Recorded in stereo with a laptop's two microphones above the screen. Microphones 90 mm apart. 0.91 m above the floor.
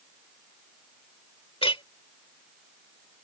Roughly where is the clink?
Left.